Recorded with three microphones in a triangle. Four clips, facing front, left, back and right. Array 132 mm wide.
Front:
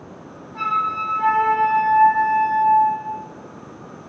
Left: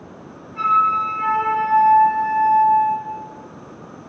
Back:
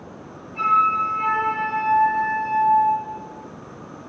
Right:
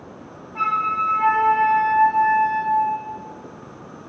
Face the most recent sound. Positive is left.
turn(degrees=-70)